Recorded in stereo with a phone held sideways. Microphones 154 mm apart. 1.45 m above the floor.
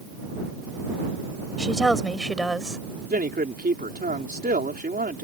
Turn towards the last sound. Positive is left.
turn(degrees=-80)